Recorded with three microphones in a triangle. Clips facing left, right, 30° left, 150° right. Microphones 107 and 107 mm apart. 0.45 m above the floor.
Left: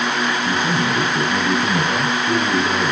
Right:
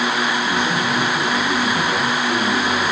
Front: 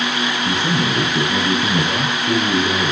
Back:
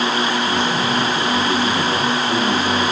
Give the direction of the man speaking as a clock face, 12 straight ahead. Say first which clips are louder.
Even, back 1 dB; 11 o'clock.